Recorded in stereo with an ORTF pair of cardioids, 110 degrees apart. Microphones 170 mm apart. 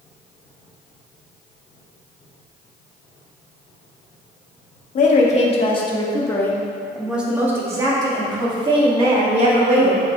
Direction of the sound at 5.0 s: 50° left.